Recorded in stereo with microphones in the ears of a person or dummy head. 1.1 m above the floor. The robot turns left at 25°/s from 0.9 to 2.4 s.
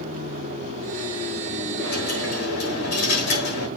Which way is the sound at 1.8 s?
55° left (ahead or behind).